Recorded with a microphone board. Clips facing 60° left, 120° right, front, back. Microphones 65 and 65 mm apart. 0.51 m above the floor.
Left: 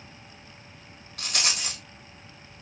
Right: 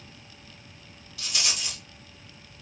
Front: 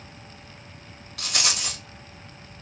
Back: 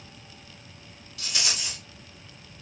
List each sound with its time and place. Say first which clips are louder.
1.2 s a rattle: left 2 dB, front 4 dB; 20° left, 1.1 m